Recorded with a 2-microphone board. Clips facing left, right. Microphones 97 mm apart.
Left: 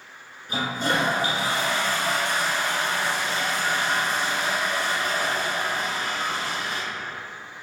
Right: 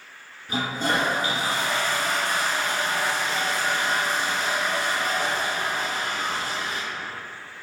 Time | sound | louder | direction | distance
0.5 | a toilet flushing | even | 40° right (ahead or behind) | 1.0 m